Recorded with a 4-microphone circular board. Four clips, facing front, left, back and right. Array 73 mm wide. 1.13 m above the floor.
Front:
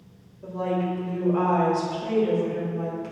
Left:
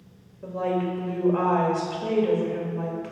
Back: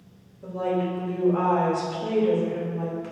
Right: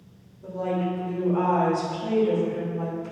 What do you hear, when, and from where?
0.4 s a woman speaking: 105° left, 2 m